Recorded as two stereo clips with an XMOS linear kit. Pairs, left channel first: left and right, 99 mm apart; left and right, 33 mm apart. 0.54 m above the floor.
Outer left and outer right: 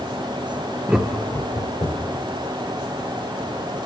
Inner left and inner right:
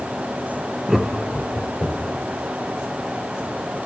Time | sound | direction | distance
0.9 | laughter | 15° right (ahead or behind) | 0.6 m